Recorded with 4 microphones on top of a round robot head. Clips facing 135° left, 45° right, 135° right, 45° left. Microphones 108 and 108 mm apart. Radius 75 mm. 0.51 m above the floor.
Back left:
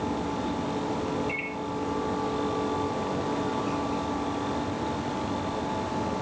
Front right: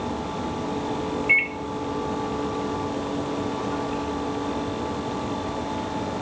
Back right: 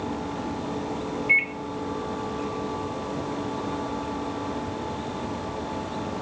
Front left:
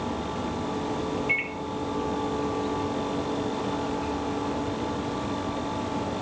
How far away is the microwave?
About 1.1 m.